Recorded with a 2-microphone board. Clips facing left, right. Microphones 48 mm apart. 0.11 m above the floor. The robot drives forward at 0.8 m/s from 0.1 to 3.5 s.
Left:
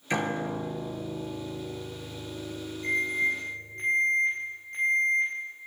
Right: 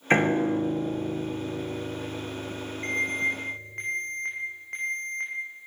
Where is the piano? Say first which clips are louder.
Right 7 dB; 40° right (ahead or behind), 1.5 m; by 3.8 s 15° right (ahead or behind), 3.5 m.